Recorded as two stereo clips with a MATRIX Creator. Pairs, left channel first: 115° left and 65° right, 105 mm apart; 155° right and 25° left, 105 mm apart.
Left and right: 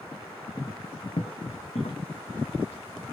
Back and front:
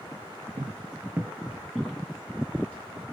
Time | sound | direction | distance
0.6 | footsteps | 45° left | 0.5 m